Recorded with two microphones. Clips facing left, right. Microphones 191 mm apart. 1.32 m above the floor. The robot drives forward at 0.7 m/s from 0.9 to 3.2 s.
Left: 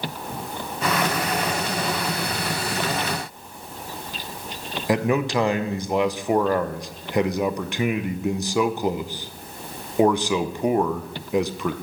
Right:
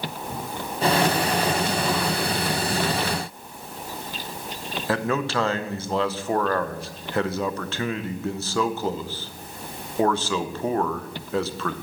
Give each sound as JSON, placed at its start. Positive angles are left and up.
{"t": 4.9, "sound": "a man speaking", "side_deg": 15, "distance_m": 0.6}